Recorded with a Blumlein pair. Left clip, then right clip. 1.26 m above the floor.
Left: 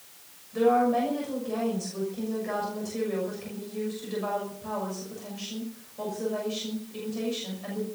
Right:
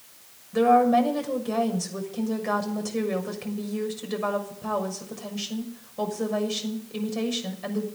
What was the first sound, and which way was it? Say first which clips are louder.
A woman speaking: right 4 dB; 65° right.